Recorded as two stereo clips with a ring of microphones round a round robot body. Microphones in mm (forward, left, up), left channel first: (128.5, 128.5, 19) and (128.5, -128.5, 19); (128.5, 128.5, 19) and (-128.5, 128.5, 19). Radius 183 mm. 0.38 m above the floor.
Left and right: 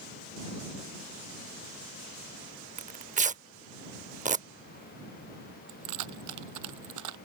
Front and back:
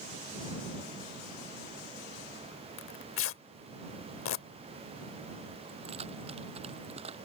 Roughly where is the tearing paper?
Ahead right.